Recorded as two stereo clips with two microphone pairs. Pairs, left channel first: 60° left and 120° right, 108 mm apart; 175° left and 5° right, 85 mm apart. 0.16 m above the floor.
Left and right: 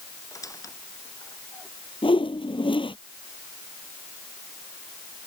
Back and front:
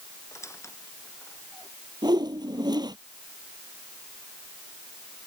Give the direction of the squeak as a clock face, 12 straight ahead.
8 o'clock.